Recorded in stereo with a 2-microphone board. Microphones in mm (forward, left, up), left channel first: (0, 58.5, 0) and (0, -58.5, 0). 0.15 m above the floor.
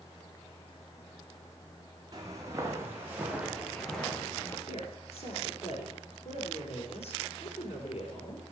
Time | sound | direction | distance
2.1 | footsteps | 35° right (ahead or behind) | 3 m
4.7 | a woman speaking | 60° left (ahead or behind) | 4 m